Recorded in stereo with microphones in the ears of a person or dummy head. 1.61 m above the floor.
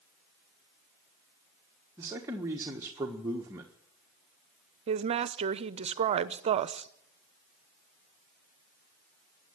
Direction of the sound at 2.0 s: 15° right (ahead or behind).